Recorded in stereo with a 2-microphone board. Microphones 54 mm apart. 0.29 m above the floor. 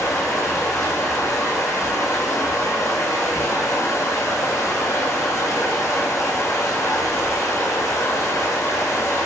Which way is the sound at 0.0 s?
80° left.